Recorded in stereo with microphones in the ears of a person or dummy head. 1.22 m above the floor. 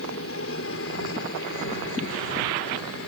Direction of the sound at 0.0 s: 65° left (ahead or behind).